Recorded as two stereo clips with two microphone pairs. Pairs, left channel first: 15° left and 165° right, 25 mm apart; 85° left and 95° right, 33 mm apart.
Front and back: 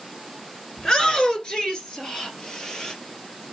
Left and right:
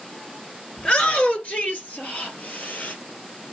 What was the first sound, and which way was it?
A shout, 60° left.